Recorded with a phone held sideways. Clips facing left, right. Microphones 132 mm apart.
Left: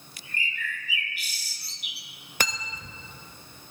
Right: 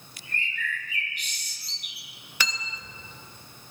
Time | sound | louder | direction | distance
0.3 | a bird | right 1 dB | 5° left (ahead or behind) | 1.6 m
2.4 | cutlery clinking | left 2 dB | 50° left (ahead or behind) | 0.6 m